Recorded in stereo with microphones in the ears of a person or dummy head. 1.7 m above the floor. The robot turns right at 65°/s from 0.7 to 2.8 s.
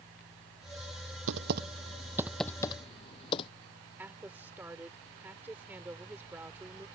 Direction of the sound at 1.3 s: 70° right (ahead or behind).